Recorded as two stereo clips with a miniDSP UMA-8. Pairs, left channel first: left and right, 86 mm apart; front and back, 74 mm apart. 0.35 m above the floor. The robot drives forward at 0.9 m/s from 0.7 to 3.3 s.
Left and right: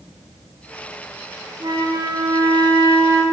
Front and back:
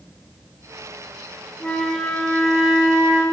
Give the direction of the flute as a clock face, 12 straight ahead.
2 o'clock.